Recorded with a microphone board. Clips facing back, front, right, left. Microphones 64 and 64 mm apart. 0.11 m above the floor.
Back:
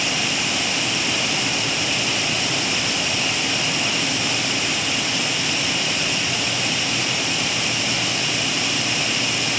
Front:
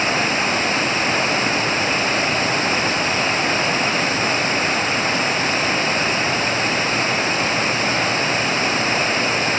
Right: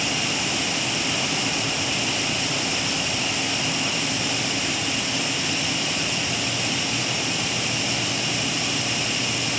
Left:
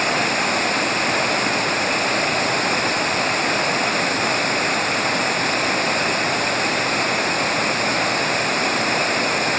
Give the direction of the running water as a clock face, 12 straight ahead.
10 o'clock.